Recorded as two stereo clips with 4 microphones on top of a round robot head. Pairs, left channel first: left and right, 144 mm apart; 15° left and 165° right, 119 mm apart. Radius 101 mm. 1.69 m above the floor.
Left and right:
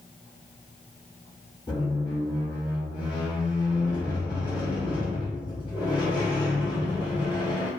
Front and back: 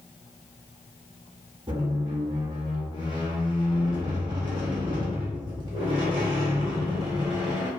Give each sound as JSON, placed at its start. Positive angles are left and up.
{"t": 1.7, "sound": "a squeak", "azimuth_deg": 155, "distance_m": 0.8}